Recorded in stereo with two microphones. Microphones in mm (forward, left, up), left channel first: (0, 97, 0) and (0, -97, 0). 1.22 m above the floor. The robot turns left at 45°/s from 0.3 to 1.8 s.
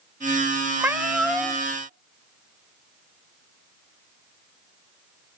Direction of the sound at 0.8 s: 155° right.